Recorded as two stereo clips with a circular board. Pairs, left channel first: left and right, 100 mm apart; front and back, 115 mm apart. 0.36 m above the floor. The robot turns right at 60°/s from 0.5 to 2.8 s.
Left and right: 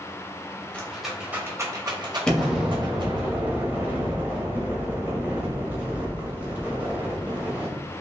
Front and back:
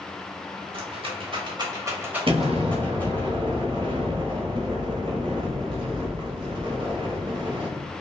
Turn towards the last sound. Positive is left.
turn(degrees=-160)